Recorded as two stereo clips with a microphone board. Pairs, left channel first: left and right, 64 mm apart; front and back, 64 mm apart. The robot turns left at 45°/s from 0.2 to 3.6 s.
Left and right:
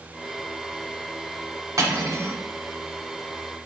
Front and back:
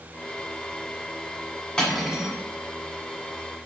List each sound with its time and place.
1.8 s cutlery clinking: 80° right, 1.2 m; by 2.4 s 105° right, 1.2 m